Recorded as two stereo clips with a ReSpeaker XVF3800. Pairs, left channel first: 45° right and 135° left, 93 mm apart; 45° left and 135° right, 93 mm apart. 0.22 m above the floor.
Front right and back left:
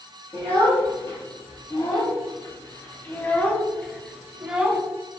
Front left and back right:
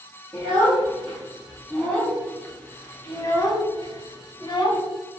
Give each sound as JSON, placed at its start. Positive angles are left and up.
{"t": 0.3, "sound": "a child speaking", "azimuth_deg": -55, "distance_m": 1.8}